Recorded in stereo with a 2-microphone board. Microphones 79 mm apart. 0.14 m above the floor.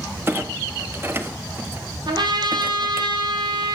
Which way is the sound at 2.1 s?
65° right (ahead or behind).